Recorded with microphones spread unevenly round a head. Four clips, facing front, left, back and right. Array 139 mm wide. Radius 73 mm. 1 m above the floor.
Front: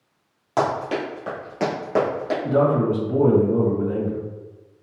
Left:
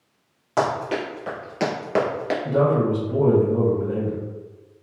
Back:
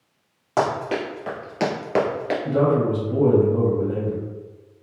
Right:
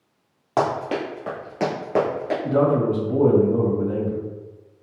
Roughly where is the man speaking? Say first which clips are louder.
Right 1 dB, front 1 dB; ahead right.